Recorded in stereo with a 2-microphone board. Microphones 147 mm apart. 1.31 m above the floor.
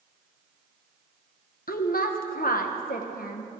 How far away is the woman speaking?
About 1.0 m.